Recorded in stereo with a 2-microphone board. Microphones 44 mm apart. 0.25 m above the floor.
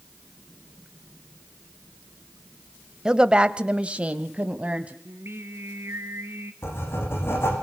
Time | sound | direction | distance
3.0 | a woman speaking | 15° right (ahead or behind) | 0.9 m
5.0 | singing | 75° right (ahead or behind) | 2 m
6.6 | writing | 70° left (ahead or behind) | 8.5 m